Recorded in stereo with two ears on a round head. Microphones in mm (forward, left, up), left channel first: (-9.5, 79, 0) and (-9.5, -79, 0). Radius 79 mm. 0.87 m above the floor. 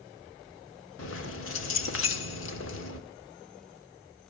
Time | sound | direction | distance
1.0 | keys jangling | 80° left | 1.8 m